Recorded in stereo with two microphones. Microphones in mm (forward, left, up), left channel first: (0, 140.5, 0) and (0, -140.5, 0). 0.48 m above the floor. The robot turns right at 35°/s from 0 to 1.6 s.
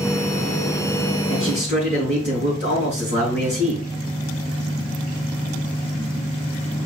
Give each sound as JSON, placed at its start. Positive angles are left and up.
{"t": 1.3, "sound": "a man speaking", "side_deg": 50, "distance_m": 4.0}